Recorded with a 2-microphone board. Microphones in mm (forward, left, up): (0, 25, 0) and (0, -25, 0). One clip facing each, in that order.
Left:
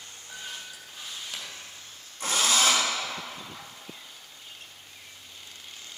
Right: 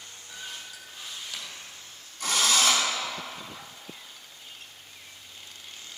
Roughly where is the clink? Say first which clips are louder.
Left 1 dB; left.